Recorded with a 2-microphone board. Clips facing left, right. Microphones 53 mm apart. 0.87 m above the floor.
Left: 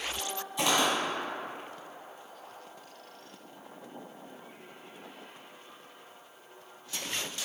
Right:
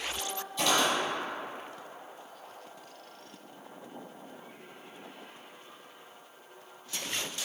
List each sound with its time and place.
0.6 s footsteps: 15° left (ahead or behind), 1.4 m